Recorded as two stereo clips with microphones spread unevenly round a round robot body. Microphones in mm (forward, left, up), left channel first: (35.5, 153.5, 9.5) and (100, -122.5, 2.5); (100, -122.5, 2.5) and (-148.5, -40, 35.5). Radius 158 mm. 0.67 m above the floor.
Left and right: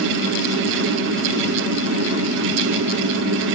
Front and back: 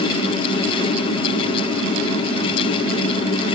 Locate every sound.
Only background noise.